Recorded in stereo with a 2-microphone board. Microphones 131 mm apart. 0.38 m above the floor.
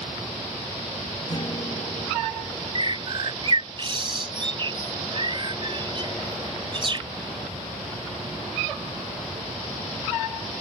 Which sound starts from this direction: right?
A bird, at 2.8 s.